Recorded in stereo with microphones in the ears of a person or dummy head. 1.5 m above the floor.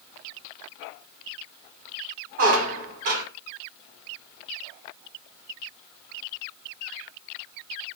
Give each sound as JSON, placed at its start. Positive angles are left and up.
{"t": 2.4, "sound": "a squeak", "side_deg": -45, "distance_m": 0.6}